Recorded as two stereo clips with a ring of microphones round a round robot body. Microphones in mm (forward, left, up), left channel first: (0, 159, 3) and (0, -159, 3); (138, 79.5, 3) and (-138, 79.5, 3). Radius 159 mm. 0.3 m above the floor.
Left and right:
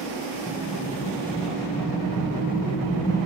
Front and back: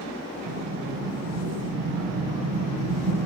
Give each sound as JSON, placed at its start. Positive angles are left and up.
{"t": 0.5, "sound": "an explosion", "azimuth_deg": 165, "distance_m": 3.5}